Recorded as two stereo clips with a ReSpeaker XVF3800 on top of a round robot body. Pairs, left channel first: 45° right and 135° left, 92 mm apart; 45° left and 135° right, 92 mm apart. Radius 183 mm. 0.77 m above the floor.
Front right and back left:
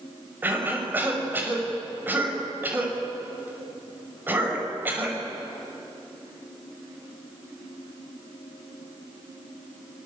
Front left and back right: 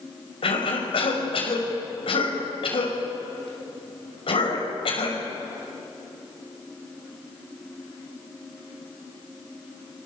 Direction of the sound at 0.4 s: 65° left.